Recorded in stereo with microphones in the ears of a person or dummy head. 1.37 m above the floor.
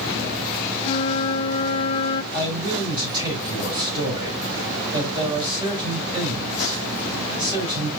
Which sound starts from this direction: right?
A man speaking, at 2.3 s.